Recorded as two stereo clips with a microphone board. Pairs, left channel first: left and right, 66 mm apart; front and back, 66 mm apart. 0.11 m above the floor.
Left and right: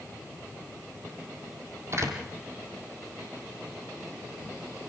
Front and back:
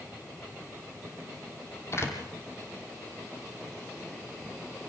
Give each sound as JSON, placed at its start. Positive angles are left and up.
{"t": 1.9, "sound": "a door slam", "azimuth_deg": -50, "distance_m": 3.5}